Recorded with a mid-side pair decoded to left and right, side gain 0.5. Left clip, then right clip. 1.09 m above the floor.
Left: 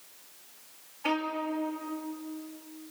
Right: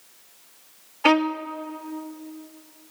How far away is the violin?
About 1.8 m.